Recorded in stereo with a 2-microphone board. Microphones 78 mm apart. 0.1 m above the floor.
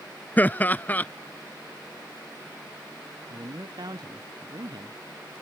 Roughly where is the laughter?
Left.